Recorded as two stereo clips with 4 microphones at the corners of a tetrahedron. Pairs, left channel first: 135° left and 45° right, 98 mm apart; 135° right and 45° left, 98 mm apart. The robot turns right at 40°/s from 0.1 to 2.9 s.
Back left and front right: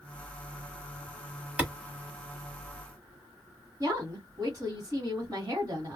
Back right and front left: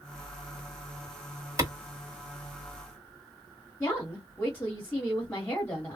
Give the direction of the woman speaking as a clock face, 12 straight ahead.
2 o'clock.